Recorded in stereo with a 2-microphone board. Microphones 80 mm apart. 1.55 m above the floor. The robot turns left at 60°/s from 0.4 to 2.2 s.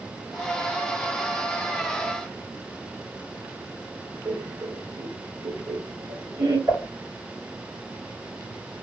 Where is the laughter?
85° right, 1.3 m.